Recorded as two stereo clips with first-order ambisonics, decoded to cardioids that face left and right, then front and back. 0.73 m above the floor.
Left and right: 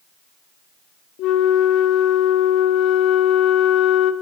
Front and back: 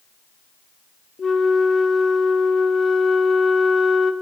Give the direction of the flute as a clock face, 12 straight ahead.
10 o'clock.